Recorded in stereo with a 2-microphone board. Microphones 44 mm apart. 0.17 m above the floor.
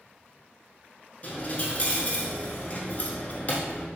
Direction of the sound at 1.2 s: 35° left (ahead or behind).